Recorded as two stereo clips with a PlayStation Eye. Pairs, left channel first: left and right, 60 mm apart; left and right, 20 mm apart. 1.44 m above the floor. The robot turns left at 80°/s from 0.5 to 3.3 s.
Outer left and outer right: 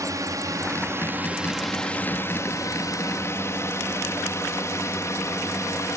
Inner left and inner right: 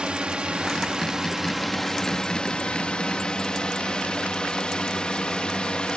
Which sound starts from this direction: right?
A drone, at 0.0 s.